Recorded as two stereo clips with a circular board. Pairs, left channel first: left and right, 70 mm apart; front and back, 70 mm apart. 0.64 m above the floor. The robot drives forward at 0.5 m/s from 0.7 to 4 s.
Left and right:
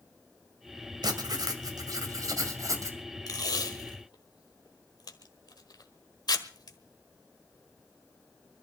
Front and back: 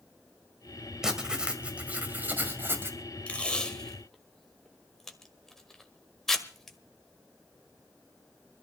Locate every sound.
1.0 s writing: 100° right, 1.8 m; by 3.0 s 125° right, 2 m
3.3 s tape being pulled: 70° left, 1.6 m; by 6.8 s 85° left, 1.5 m